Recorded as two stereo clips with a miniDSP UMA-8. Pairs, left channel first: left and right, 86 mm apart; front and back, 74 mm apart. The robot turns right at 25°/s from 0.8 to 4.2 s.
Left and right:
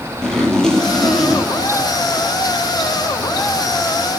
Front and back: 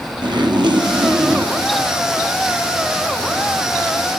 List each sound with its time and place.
0.2 s a zipper: 170° left, 3 m; by 3.3 s 125° right, 3 m